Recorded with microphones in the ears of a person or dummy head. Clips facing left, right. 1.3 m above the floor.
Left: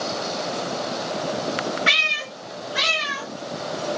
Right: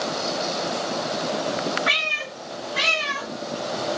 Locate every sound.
1.9 s a cat meowing: 40° left (ahead or behind), 1.0 m; by 3.3 s 15° left (ahead or behind), 2 m